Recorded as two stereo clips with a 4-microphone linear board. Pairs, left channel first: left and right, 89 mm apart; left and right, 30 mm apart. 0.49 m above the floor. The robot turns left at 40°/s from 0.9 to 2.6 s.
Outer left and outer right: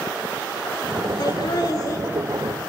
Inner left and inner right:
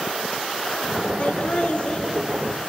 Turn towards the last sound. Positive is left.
turn(degrees=35)